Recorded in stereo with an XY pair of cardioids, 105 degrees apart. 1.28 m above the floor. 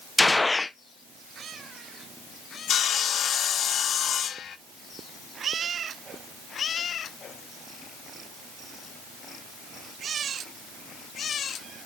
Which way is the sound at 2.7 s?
55° left.